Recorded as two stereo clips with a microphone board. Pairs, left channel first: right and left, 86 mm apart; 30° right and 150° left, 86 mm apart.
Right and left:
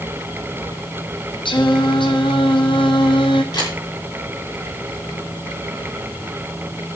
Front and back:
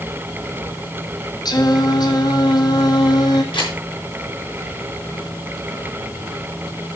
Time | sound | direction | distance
1.4 | singing | 70° right | 1.6 m
3.5 | a camera shutter | 55° right | 7 m